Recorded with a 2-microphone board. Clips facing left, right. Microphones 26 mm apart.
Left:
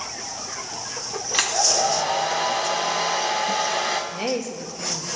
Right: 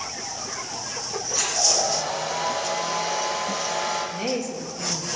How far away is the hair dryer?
About 1.2 m.